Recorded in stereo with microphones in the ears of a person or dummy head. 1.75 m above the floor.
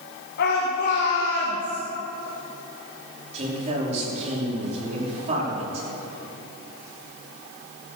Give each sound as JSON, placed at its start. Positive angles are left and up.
{"t": 0.4, "sound": "a shout", "side_deg": 65, "distance_m": 2.0}
{"t": 3.3, "sound": "a man speaking", "side_deg": -45, "distance_m": 5.0}